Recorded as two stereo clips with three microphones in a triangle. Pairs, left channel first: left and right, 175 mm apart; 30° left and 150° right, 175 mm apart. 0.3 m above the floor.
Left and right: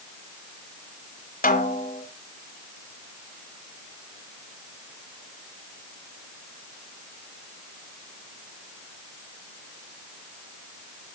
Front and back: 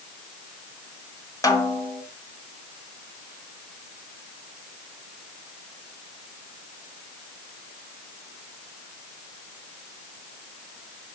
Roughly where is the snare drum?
Left.